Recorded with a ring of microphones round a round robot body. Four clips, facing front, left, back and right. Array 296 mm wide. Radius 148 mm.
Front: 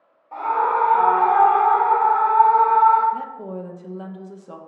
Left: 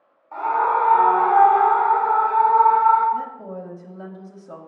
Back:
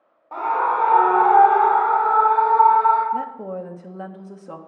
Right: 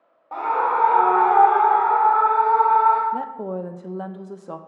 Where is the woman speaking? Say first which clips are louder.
Right 2 dB, back 3 dB; 105° right, 0.8 m.